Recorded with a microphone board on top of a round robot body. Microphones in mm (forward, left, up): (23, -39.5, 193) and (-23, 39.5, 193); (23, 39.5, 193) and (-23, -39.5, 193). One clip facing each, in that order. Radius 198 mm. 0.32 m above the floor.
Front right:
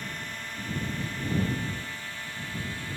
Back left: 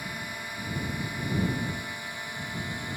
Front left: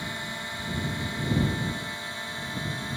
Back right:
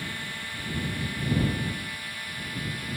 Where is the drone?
60° left; by 3.0 s 70° left.